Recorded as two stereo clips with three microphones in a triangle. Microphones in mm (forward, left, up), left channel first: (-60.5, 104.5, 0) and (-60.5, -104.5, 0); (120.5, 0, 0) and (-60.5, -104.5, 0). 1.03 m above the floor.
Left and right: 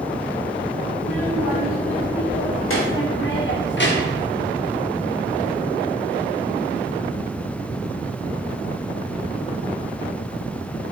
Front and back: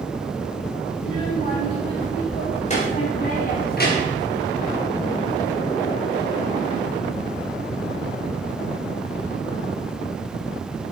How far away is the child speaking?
About 4 m.